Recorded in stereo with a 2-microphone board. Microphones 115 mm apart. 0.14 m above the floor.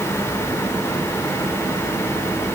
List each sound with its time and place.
Only background noise.